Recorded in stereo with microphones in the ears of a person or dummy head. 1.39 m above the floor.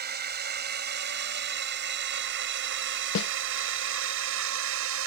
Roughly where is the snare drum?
Left.